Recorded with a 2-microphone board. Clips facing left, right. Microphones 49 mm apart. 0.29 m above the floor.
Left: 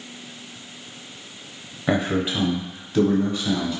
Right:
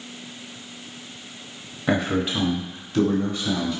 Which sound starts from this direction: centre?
A man speaking, at 1.9 s.